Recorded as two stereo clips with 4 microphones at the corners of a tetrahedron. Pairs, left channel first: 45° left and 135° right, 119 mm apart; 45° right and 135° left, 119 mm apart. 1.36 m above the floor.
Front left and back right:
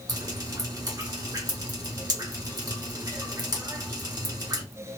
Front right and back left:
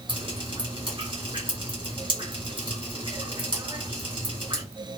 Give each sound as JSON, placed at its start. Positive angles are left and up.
{"t": 0.1, "sound": "dripping", "azimuth_deg": 170, "distance_m": 1.8}